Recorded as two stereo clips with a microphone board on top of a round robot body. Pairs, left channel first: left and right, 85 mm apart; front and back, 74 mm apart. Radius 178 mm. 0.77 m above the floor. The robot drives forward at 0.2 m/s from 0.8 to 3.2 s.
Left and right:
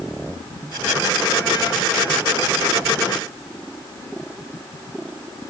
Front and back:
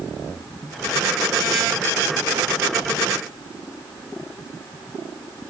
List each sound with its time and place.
Only background noise.